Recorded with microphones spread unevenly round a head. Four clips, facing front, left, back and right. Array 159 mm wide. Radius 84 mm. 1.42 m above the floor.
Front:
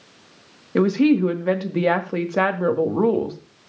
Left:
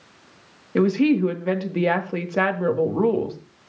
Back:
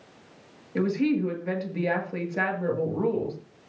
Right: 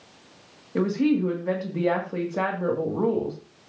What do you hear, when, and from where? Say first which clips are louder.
0.8 s a woman speaking: left 4 dB, front 8 dB; 25° left, 2.0 m